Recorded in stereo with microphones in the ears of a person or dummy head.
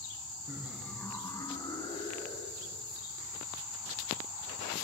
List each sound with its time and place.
0.5 s laughter: 15° right (ahead or behind), 0.9 m; by 2.8 s 35° left (ahead or behind), 3.5 m